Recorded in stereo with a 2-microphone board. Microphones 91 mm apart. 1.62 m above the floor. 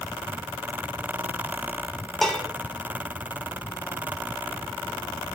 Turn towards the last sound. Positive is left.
turn(degrees=0)  # may be behind; listen again after turning